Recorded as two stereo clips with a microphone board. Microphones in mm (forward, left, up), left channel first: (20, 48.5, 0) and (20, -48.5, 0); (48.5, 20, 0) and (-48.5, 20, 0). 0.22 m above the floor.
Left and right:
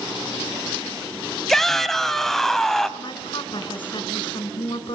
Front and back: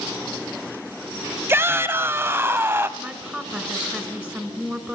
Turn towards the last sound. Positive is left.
turn(degrees=105)